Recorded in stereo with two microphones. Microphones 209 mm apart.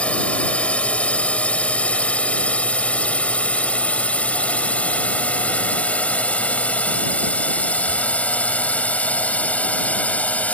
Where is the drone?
5° left (ahead or behind).